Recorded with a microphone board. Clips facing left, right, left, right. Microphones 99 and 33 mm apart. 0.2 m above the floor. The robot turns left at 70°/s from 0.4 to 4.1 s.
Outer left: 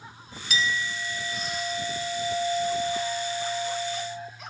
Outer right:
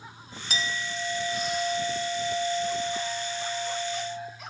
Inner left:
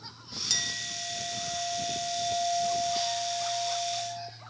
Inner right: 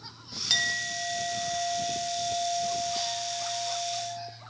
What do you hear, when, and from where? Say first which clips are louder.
0.5 s a clink: outer left 3 dB, inner right 6 dB; 85° right, 0.7 m; by 4.3 s 25° left, 0.7 m